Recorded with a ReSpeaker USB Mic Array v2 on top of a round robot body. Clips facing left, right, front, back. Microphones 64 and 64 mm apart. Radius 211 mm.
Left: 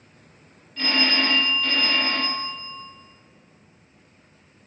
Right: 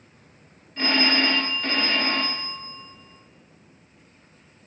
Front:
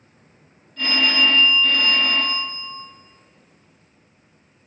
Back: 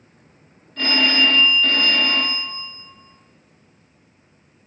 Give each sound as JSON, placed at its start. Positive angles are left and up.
{"t": 0.8, "sound": "a phone ringing", "azimuth_deg": -150, "distance_m": 0.7}